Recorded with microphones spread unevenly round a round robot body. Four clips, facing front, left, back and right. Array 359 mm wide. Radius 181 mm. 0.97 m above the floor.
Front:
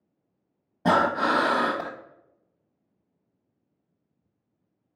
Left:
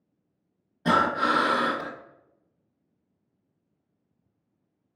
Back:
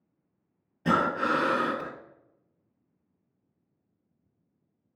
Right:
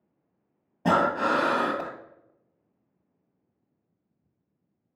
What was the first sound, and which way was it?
Breathing, 30° right.